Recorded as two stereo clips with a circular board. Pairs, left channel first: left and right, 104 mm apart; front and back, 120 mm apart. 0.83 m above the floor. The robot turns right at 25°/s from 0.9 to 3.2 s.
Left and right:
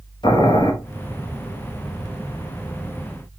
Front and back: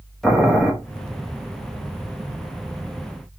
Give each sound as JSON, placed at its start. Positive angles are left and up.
{"t": 0.2, "sound": "boiling", "azimuth_deg": 85, "distance_m": 1.0}